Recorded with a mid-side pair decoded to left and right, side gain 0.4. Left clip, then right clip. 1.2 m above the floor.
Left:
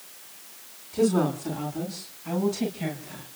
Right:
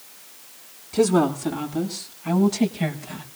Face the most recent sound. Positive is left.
turn(degrees=-65)